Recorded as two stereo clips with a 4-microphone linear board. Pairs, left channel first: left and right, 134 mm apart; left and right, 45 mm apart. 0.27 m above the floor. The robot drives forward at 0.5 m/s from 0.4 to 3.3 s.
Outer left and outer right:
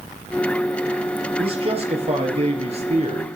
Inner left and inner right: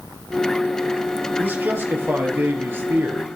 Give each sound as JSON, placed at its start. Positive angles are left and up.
{"t": 1.4, "sound": "a man speaking", "side_deg": -45, "distance_m": 4.5}